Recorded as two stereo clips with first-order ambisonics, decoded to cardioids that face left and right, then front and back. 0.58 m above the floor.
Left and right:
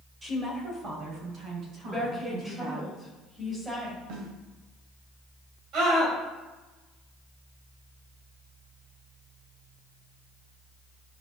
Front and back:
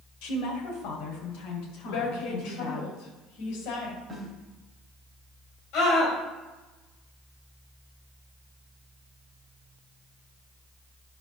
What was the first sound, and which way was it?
A woman speaking, 10° right.